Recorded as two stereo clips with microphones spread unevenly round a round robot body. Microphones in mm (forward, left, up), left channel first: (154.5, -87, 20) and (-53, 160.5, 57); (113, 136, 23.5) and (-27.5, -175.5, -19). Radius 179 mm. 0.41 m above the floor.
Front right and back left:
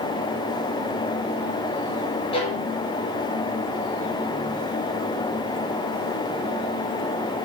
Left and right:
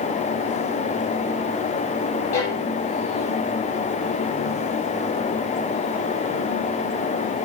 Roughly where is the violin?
Ahead left.